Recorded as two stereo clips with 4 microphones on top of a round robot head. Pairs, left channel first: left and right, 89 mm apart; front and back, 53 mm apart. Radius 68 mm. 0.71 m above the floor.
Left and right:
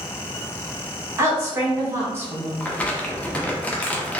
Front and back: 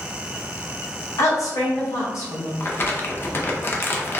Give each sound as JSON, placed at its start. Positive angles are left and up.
{"t": 1.2, "sound": "a woman speaking", "azimuth_deg": -25, "distance_m": 2.0}
{"t": 2.6, "sound": "crumpling", "azimuth_deg": 20, "distance_m": 1.0}